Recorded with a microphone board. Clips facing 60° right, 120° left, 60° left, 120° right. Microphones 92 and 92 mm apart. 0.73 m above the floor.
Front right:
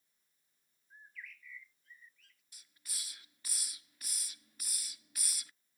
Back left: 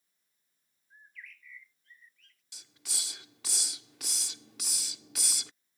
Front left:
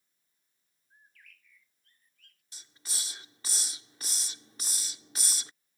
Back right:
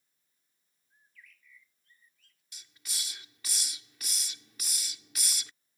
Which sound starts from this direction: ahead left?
A bird, at 0.9 s.